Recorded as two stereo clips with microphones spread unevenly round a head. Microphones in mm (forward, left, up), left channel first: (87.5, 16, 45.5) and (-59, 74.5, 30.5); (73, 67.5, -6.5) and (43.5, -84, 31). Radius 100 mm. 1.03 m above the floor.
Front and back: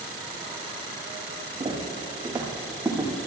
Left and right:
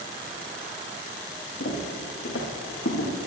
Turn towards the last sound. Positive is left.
turn(degrees=70)